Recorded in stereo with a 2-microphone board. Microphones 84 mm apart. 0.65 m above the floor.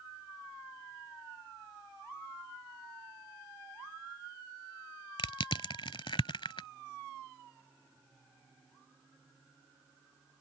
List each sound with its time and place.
5.2 s crushing: 75° left (ahead or behind)